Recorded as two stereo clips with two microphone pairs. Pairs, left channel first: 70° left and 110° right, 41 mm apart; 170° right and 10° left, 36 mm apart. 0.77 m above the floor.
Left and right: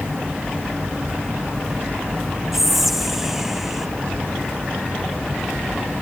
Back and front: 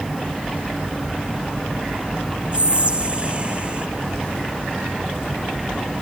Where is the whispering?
30° right, 0.7 m.